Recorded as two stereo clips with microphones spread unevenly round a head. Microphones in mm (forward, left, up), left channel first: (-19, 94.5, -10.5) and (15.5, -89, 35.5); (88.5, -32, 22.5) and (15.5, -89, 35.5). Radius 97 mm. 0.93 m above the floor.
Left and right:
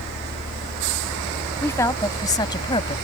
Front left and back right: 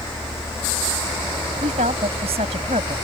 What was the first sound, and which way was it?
A woman speaking, straight behind.